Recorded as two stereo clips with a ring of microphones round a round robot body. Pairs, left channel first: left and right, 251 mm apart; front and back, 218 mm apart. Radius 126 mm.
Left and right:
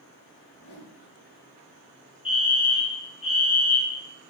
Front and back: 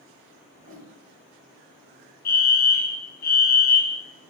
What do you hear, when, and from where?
0.5 s a whoosh: 135° left, 2.5 m
2.2 s a fire alarm: 30° left, 1.9 m